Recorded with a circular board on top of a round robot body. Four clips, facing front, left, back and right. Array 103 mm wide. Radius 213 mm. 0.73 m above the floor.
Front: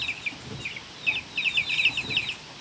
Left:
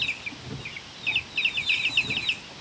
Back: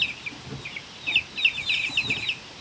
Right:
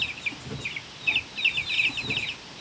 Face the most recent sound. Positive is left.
No sound to turn to.